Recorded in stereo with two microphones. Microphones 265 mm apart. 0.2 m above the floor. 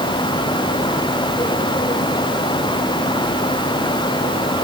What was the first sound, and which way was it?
Only background noise.